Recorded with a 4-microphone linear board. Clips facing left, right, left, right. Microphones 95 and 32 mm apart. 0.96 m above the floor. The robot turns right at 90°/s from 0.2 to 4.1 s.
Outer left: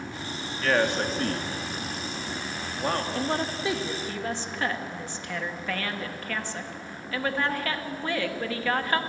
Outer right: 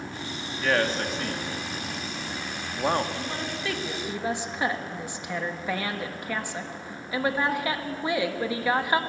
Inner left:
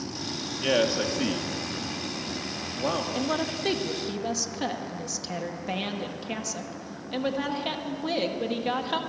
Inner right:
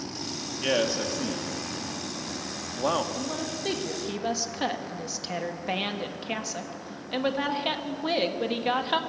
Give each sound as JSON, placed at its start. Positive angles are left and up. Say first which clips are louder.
{"t": 0.6, "sound": "a man speaking", "louder": "outer left 1 dB, inner left 2 dB", "side_deg": -10, "distance_m": 1.4}
{"t": 3.1, "sound": "a woman speaking", "louder": "outer left 4 dB, inner left 4 dB", "azimuth_deg": 110, "distance_m": 1.4}